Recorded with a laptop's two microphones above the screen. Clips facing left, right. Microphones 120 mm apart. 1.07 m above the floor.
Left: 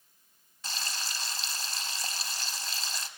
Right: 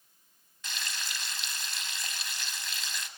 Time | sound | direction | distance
0.6 | frying | 35° left (ahead or behind) | 1.1 m